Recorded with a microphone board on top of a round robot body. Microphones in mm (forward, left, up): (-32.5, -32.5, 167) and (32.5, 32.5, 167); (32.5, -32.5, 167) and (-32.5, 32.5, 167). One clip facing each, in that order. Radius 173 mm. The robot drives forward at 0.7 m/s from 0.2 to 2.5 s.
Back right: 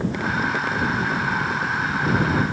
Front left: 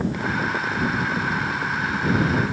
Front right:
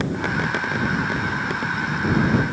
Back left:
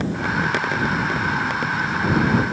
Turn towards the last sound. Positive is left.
No sound to turn to.